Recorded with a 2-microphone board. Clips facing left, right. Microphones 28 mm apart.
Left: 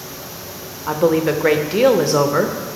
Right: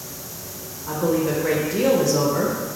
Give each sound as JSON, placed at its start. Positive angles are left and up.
{"t": 0.9, "sound": "a woman speaking", "side_deg": 45, "distance_m": 0.8}